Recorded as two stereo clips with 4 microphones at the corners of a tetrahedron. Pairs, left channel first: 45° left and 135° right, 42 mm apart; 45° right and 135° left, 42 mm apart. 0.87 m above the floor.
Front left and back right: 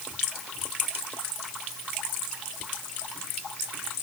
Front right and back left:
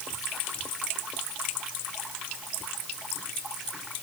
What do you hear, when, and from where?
Only background noise.